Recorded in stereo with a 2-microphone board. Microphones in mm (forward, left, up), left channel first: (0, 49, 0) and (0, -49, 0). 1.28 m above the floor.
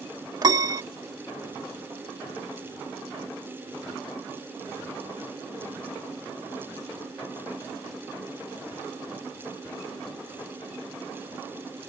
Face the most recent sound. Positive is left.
turn(degrees=-40)  # may be behind; listen again after turning